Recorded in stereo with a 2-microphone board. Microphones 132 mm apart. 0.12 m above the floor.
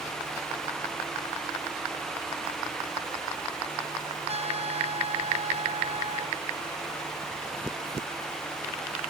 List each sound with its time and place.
4.3 s a trumpet: 50° right (ahead or behind)